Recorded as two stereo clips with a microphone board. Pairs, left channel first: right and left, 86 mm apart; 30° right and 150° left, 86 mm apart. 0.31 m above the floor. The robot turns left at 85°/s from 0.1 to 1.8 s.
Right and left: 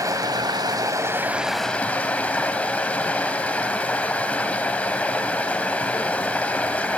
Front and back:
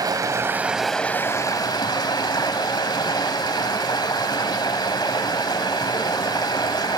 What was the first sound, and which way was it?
Running water, 125° left.